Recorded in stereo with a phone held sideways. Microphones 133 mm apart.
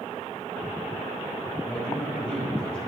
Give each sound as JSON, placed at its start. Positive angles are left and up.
{"t": 1.6, "sound": "a man speaking", "side_deg": 5, "distance_m": 5.5}